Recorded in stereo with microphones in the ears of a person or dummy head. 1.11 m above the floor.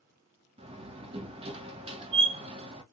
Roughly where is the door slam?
Right.